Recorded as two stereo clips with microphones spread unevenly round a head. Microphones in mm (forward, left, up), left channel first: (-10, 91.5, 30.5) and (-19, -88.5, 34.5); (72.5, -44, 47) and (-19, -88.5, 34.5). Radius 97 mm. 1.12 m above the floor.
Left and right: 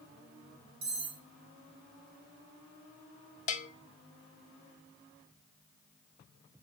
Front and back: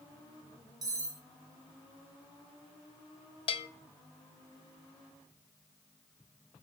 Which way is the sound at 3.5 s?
50° left.